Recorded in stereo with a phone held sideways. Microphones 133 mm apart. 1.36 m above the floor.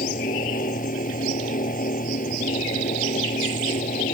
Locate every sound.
0.0 s a fan: 75° left (ahead or behind)